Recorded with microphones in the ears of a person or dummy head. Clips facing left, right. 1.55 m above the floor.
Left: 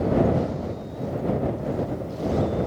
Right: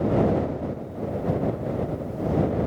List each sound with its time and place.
Only background noise.